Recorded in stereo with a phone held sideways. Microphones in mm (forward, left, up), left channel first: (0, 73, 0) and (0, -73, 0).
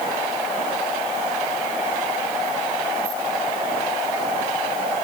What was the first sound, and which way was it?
Only background noise.